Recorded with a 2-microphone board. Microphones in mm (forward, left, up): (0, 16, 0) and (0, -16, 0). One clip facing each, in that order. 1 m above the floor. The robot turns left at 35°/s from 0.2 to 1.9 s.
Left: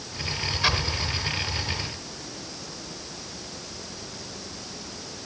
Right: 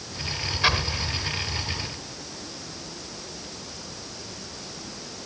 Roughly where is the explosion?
Centre.